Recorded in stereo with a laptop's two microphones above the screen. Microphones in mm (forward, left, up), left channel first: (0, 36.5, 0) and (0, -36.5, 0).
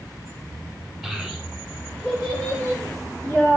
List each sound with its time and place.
1.0 s a child speaking: 10° right (ahead or behind), 3 m; by 3.6 s 30° right (ahead or behind), 1.9 m